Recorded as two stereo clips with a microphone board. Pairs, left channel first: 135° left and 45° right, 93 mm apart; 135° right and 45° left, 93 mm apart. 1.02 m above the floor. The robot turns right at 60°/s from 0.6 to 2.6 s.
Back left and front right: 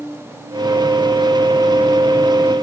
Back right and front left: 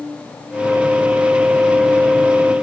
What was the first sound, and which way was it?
Only background noise.